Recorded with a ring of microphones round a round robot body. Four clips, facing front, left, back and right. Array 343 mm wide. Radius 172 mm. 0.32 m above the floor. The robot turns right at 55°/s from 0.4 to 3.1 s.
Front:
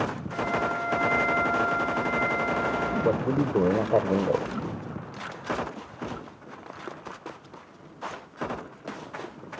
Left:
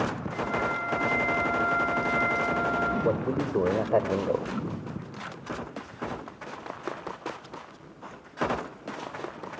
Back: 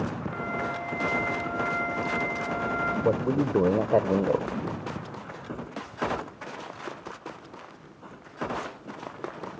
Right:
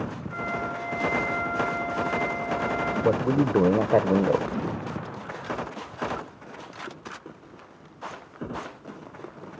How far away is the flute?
About 5.5 m.